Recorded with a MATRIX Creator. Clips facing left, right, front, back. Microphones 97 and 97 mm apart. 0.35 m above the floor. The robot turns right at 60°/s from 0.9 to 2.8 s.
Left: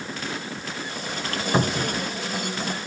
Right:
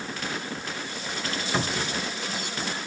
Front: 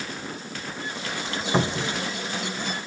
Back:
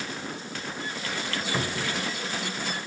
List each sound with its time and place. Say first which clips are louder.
1.5 s a cupboard door: left 6 dB, front 7 dB; 40° left, 1.1 m; by 2.0 s 70° left, 1.1 m